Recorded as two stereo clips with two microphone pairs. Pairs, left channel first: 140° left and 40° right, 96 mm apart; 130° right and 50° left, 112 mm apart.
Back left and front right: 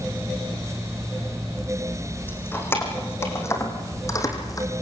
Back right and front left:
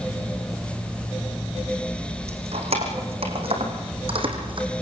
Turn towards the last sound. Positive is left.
turn(degrees=90)